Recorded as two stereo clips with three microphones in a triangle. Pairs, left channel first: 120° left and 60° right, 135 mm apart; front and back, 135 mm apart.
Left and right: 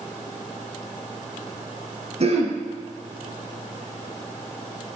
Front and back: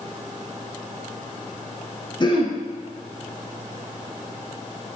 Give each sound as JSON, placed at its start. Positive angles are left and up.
{"t": 2.2, "sound": "throat clearing", "azimuth_deg": -45, "distance_m": 1.5}